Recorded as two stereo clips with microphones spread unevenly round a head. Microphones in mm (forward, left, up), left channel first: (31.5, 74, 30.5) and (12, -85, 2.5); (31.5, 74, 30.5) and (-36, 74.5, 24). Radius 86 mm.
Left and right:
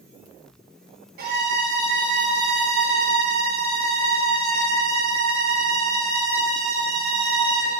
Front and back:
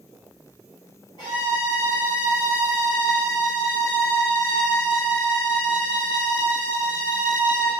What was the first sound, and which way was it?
A violin, 65° right.